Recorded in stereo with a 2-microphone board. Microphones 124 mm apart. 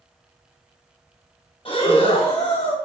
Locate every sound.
1.6 s breathing: 50° left (ahead or behind), 2.0 m